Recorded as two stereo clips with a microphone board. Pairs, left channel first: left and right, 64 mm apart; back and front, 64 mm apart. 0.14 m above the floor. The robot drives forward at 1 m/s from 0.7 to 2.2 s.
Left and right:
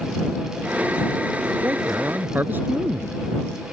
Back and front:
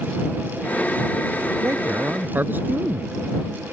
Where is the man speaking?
30° right; by 3.2 s 45° right.